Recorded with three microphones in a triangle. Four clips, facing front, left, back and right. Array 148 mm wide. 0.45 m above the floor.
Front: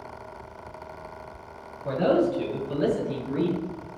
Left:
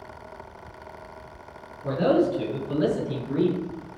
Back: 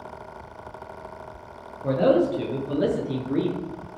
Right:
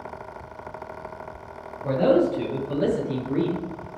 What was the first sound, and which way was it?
A man speaking, 165° right.